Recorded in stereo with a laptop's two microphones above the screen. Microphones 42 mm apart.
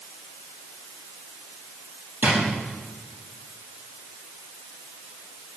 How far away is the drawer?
About 6 m.